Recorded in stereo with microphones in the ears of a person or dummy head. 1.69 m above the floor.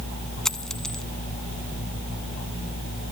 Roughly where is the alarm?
I don't hear an alarm.